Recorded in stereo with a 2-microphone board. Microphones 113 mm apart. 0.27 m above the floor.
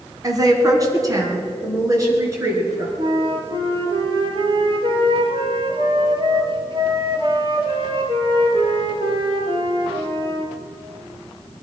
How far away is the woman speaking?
About 2.5 m.